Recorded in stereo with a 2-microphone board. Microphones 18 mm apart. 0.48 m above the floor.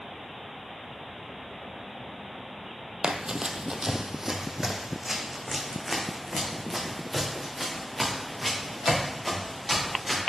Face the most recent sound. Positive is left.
turn(degrees=10)  # may be behind; listen again after turning